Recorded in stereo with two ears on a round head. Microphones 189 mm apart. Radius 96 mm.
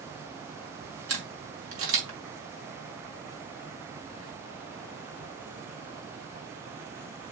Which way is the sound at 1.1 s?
70° right (ahead or behind).